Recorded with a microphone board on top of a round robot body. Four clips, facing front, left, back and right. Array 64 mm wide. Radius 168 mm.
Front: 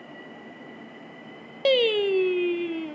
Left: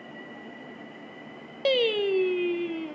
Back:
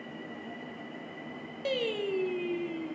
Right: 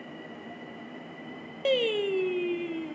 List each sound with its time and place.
1.6 s singing: 20° left, 0.6 m